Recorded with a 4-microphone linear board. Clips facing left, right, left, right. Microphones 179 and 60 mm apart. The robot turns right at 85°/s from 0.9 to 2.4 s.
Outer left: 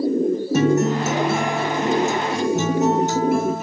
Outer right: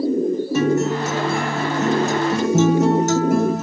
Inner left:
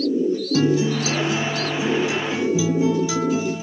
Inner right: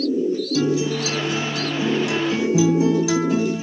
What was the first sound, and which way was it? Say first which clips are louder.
A guitar: outer left 2 dB, inner left 3 dB; 140° left.